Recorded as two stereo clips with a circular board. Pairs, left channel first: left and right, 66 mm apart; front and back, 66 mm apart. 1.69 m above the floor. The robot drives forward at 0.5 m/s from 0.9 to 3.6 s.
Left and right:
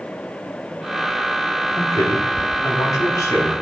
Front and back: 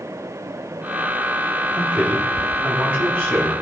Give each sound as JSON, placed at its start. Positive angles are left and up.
{"t": 1.7, "sound": "a man speaking", "azimuth_deg": 110, "distance_m": 3.0}